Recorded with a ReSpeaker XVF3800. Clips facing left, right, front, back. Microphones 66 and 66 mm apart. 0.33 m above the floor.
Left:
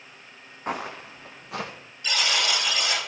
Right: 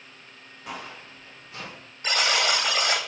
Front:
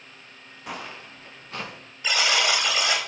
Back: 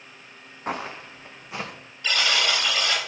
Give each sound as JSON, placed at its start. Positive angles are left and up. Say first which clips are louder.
{"t": 0.7, "sound": "footsteps", "louder": "left 7 dB, back 5 dB", "azimuth_deg": 135, "distance_m": 0.9}
{"t": 2.0, "sound": "a buzzer", "louder": "right 2 dB, front 1 dB", "azimuth_deg": -70, "distance_m": 1.6}